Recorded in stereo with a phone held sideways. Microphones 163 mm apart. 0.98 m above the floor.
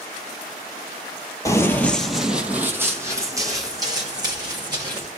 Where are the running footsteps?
20° left (ahead or behind), 1.0 m; by 5.1 s 25° right (ahead or behind), 3.5 m.